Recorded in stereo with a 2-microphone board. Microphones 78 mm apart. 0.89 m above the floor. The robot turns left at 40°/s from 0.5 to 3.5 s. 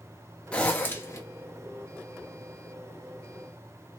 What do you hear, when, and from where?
0.5 s a zipper: 15° left (ahead or behind), 0.7 m; by 1.2 s 40° left (ahead or behind), 0.7 m